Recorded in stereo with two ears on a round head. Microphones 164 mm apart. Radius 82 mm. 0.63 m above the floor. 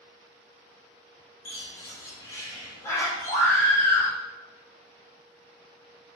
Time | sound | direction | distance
1.4 | a bird | 15° left (ahead or behind) | 1.3 m
3.3 | a scream | 30° right (ahead or behind) | 2 m